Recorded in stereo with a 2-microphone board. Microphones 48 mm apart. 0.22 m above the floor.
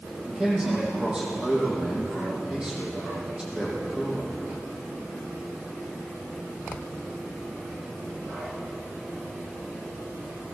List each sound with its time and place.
0.2 s a man speaking: 15° right (ahead or behind), 8 m